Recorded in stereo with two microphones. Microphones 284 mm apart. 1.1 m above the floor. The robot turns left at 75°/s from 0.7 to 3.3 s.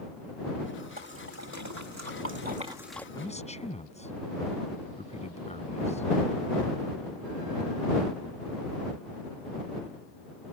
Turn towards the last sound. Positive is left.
turn(degrees=25)  # may be behind; listen again after turning